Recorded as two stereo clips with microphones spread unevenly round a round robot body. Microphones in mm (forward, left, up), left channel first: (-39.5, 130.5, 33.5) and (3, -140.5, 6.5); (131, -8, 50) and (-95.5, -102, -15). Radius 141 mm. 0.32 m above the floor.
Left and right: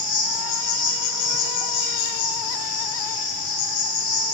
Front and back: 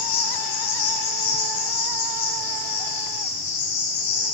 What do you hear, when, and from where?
0.0 s an insect: 35° left, 2.0 m